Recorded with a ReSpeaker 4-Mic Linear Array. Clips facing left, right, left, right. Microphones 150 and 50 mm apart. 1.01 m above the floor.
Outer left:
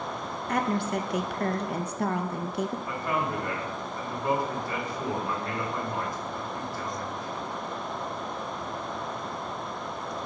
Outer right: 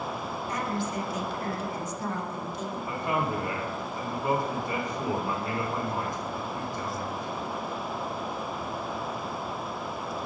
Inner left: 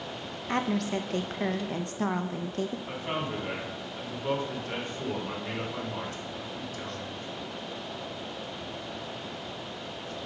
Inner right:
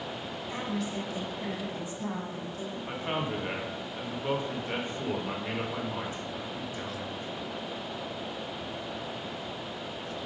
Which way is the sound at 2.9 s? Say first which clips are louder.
Outer right 1 dB, inner right 1 dB; 20° right (ahead or behind).